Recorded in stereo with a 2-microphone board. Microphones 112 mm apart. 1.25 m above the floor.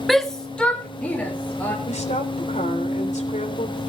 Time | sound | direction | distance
0.1 | a shout | centre (ahead or behind) | 0.9 m
1.9 | a woman speaking | 75° left (ahead or behind) | 3.5 m